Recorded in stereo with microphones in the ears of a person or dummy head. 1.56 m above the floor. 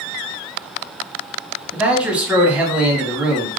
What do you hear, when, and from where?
1.7 s a man speaking: 5° right (ahead or behind), 1.2 m